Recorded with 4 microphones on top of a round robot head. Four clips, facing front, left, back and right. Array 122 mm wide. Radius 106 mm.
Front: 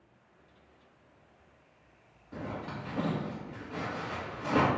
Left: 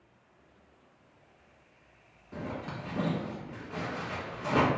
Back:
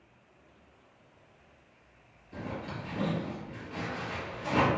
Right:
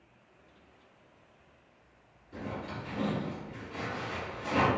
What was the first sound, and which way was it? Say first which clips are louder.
A zipper: left 1 dB, even; 45° left.